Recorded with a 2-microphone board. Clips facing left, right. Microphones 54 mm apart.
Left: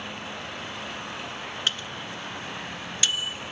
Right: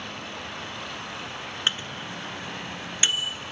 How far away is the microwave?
About 0.9 m.